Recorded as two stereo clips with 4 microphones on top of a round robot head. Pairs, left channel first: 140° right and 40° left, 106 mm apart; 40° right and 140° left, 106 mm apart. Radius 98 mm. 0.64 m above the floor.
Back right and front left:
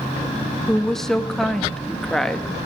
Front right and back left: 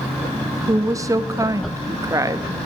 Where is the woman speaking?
135° left, 1.2 m.